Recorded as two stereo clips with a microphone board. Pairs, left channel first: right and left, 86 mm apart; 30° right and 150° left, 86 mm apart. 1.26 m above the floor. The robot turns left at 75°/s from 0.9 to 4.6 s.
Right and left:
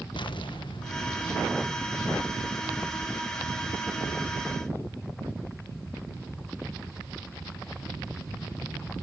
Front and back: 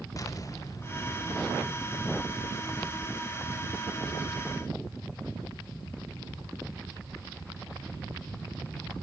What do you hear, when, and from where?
0.2 s an explosion: 80° right, 1.1 m; by 1.7 s 135° right, 1.1 m